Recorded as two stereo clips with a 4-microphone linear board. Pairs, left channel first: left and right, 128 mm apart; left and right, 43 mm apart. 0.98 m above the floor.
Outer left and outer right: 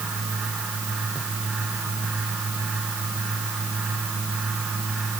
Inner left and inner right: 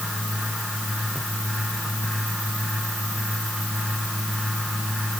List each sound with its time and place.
Only background noise.